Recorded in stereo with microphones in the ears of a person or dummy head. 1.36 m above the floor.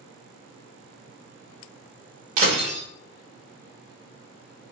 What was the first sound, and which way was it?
Breaking glass, 40° right (ahead or behind).